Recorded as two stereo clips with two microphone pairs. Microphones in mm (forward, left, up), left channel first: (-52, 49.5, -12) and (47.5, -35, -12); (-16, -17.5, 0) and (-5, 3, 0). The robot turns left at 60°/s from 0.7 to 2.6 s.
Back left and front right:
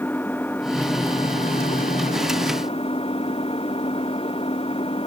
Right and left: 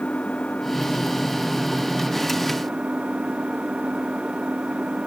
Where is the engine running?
145° right; by 5.1 s 100° left.